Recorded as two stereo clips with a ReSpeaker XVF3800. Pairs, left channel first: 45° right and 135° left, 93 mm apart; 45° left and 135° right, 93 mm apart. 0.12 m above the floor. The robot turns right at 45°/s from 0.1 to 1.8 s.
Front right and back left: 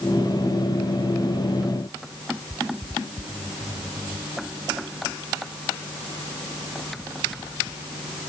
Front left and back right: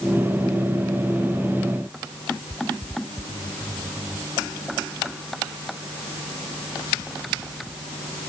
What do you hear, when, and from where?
Only background noise.